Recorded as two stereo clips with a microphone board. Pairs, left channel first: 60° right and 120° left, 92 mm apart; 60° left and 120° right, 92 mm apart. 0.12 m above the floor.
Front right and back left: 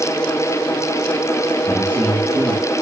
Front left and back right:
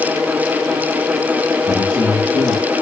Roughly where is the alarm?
I don't hear an alarm.